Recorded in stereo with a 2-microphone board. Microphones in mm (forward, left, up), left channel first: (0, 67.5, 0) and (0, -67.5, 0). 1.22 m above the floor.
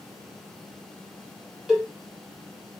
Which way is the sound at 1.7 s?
5° right (ahead or behind).